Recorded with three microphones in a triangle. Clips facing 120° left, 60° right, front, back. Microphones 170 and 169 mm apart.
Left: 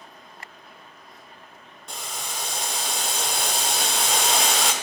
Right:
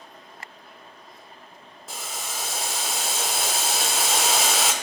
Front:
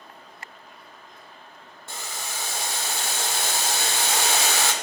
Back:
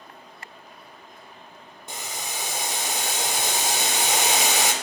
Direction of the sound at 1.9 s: 140° right.